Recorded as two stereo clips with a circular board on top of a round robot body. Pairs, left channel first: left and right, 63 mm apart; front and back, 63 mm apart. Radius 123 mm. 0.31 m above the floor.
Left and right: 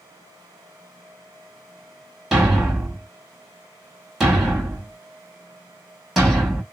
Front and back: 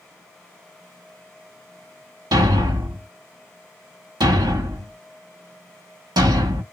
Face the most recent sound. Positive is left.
turn(degrees=-175)